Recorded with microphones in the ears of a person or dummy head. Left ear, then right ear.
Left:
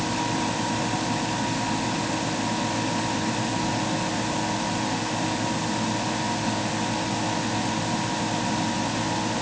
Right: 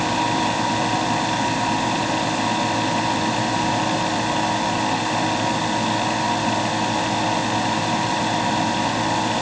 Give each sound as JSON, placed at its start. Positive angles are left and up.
{"t": 0.0, "sound": "a fan", "side_deg": -25}